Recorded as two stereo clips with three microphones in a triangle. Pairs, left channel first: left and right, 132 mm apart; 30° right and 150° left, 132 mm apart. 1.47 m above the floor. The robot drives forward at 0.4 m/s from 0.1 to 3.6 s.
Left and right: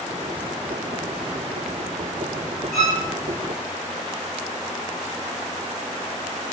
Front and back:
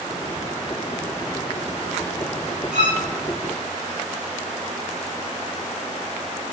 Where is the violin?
Straight behind, 2.0 m.